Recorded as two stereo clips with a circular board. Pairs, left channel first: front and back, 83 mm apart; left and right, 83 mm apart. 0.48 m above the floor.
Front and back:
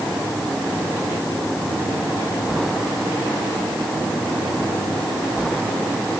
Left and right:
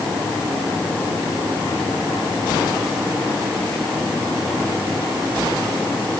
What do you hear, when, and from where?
Only background noise.